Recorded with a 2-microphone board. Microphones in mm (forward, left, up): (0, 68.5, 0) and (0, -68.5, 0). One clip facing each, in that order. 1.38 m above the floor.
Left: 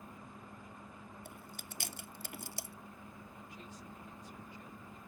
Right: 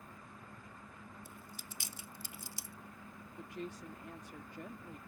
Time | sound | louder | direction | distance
1.2 | chewing | left 2 dB | 65° left (ahead or behind) | ?
3.4 | a woman speaking | right 11 dB | 70° right (ahead or behind) | ?